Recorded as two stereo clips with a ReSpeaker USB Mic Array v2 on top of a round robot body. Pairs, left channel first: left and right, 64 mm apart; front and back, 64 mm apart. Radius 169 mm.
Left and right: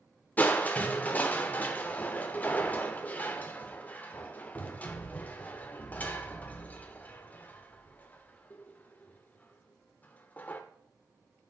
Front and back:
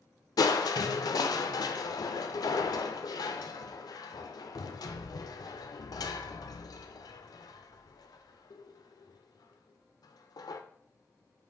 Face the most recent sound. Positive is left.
turn(degrees=25)